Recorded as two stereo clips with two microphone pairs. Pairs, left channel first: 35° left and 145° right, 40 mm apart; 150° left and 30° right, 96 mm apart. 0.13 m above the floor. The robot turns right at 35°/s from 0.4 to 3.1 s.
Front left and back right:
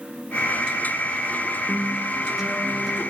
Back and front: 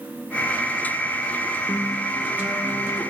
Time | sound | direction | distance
1.7 | a guitar | 110° right | 1.9 m